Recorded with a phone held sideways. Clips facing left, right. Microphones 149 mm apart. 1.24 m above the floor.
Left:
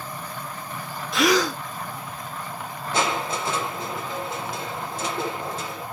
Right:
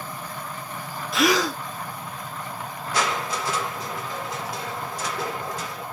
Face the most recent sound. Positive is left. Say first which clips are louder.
# left 1 dB
turn(degrees=25)  # may be behind; listen again after turning